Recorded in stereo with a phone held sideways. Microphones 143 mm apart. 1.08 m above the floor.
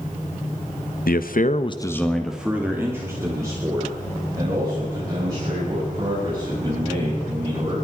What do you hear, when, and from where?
1.1 s a man speaking: 85° left, 1.0 m; by 7.8 s 30° right (ahead or behind), 9 m